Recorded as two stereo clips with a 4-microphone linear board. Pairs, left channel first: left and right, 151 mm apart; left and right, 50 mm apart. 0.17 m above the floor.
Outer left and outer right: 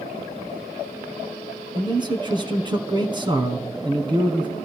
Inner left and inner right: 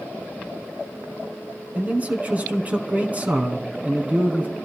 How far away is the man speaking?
About 2 m.